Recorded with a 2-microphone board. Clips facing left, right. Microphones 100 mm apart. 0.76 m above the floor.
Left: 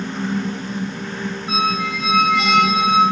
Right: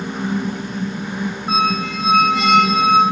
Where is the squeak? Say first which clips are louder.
Right 2 dB; 40° right (ahead or behind), 3 m.